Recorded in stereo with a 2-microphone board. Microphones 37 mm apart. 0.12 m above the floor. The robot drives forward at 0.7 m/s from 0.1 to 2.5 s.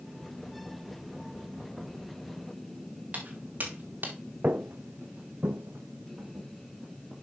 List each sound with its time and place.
3.1 s footsteps: 40° right (ahead or behind), 3.5 m; by 4.2 s 65° right (ahead or behind), 3 m
4.4 s footsteps: 45° right (ahead or behind), 0.7 m; by 7.1 s 55° right (ahead or behind), 3.5 m